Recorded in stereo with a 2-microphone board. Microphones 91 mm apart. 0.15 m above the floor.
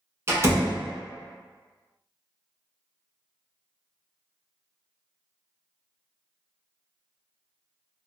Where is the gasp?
No gasp in this recording.